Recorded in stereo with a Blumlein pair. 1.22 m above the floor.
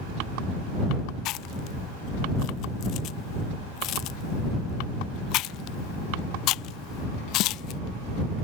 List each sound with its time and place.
1.2 s chewing: 40° left